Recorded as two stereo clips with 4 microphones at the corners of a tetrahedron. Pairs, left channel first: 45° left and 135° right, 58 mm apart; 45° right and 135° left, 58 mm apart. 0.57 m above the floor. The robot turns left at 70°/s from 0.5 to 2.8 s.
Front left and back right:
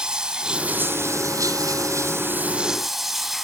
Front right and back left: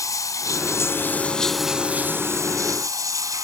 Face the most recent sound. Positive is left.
turn(degrees=140)